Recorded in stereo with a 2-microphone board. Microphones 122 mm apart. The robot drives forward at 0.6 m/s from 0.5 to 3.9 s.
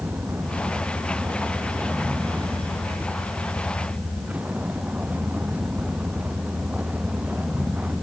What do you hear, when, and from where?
0.0 s a vehicle: 15° right (ahead or behind); by 8.0 s 10° right (ahead or behind)